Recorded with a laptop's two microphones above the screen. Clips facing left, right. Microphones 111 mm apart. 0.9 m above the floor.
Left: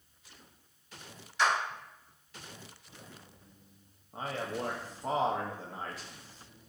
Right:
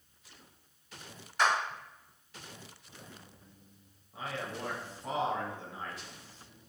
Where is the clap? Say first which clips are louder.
Even; 50° right (ahead or behind), 1.3 m.